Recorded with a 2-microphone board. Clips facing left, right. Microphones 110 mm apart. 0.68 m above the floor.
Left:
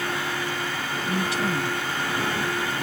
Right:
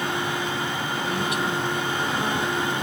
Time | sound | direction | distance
1.1 | a woman speaking | 30° left (ahead or behind) | ?